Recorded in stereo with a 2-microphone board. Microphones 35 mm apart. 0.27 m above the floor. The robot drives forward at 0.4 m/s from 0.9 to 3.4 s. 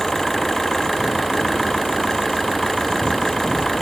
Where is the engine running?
5° left (ahead or behind).